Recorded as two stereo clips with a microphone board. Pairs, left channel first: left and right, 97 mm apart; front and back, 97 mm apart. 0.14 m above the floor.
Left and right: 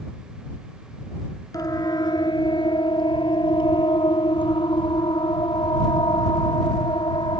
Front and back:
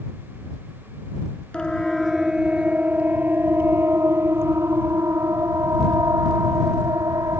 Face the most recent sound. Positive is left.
turn(degrees=125)